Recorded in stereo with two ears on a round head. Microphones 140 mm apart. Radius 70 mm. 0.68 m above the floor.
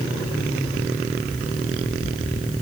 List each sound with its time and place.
Only background noise.